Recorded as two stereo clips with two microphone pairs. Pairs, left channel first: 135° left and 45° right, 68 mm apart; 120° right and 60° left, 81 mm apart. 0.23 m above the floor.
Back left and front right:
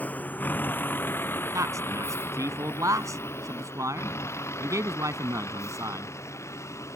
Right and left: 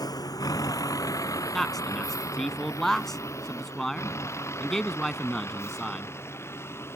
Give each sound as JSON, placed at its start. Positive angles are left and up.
{"t": 0.0, "sound": "a vehicle", "azimuth_deg": -160}
{"t": 1.5, "sound": "a man speaking", "azimuth_deg": -35}